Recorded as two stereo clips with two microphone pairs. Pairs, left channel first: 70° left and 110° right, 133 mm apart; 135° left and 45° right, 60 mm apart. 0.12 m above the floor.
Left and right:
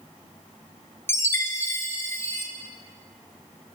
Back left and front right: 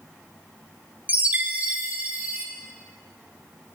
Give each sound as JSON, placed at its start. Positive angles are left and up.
{"t": 1.1, "sound": "a chime", "azimuth_deg": 10, "distance_m": 0.8}